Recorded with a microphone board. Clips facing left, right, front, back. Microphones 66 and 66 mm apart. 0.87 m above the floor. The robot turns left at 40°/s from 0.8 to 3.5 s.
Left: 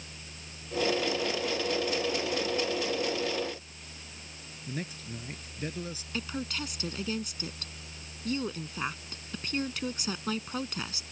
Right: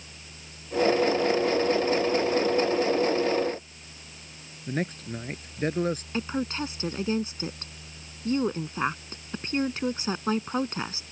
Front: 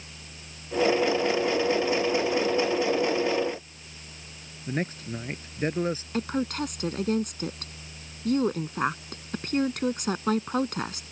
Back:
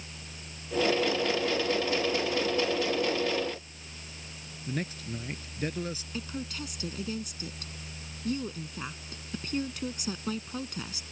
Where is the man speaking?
50° right.